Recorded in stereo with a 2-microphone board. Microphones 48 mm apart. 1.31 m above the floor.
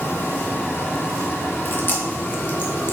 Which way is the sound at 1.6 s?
45° left (ahead or behind).